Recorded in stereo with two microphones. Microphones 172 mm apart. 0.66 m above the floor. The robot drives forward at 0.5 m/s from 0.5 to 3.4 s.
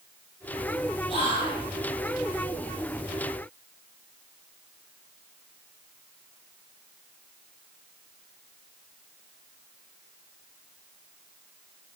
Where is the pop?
No pop in this recording.